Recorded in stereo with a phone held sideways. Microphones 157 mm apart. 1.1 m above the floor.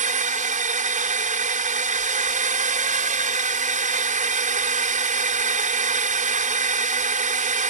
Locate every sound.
0.0 s a drone: 55° right (ahead or behind)